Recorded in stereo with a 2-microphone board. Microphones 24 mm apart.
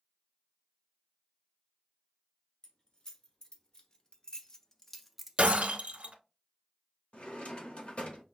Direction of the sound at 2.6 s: 40° left (ahead or behind).